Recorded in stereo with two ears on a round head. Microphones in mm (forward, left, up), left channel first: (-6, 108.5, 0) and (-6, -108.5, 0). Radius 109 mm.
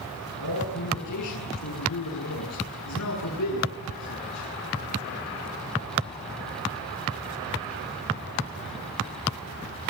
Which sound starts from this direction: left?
A man speaking, at 0.4 s.